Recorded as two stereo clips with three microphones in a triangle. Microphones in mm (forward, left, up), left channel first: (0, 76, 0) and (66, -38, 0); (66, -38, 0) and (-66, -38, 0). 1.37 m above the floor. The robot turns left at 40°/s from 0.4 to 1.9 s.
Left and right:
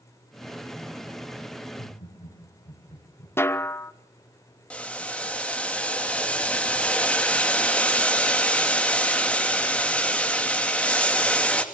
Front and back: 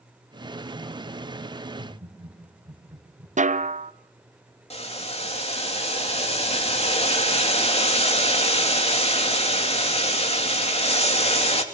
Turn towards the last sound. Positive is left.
turn(degrees=40)